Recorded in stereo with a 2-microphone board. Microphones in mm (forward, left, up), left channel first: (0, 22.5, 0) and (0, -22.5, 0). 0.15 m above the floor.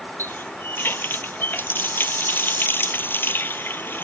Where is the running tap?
55° left (ahead or behind).